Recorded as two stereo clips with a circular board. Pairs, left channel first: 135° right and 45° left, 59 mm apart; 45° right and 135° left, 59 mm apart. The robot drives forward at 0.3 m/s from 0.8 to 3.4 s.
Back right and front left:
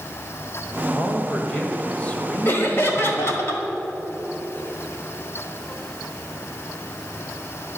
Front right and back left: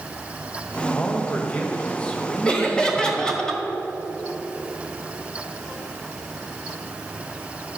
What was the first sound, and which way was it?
A man speaking, 55° right.